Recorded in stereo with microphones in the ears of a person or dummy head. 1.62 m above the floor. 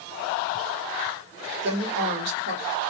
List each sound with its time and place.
1.6 s a woman speaking: 65° right (ahead or behind), 1.2 m